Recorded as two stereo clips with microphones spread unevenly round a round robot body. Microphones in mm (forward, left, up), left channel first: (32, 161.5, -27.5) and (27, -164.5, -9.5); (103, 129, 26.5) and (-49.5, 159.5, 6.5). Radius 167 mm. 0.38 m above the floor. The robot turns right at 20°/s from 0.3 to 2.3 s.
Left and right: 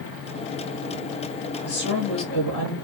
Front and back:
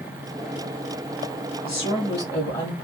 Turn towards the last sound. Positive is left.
turn(degrees=45)